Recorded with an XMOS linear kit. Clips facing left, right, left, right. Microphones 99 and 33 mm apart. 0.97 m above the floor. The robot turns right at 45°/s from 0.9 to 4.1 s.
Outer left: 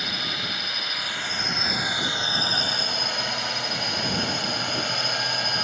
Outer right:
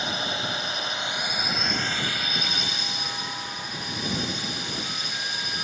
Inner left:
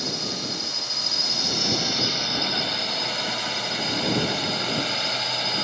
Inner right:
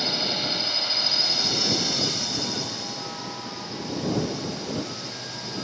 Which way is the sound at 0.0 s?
30° right.